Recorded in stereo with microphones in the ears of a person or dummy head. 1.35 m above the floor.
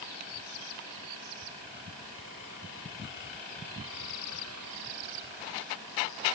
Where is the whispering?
No whispering in this recording.